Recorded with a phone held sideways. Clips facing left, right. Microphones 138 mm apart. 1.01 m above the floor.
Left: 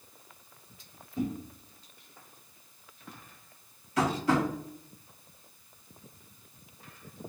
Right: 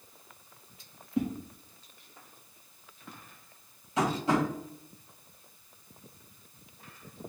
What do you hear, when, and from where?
1.2 s a whoosh: 65° right (ahead or behind), 1.2 m
4.0 s tapping: 20° right (ahead or behind), 2 m